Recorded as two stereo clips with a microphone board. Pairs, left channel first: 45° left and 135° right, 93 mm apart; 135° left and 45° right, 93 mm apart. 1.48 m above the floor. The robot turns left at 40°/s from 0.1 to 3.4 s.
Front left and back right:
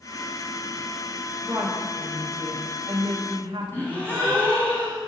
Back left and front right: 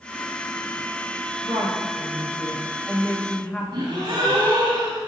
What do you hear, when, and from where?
1.4 s a woman speaking: 70° right, 1.3 m; by 4.4 s 150° right, 1.3 m
3.7 s a gasp: 20° right, 3 m